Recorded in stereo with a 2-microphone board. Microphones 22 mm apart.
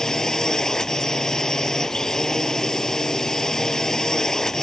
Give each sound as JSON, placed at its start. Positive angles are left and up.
{"t": 0.0, "sound": "a drone", "side_deg": 25}